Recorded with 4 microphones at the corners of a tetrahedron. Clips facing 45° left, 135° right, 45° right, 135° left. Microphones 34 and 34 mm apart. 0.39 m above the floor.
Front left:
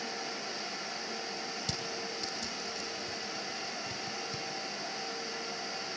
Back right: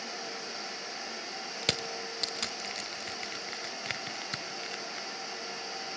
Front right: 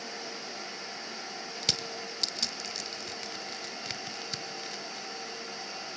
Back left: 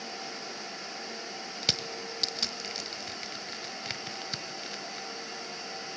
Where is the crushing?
145° right, 1.4 m.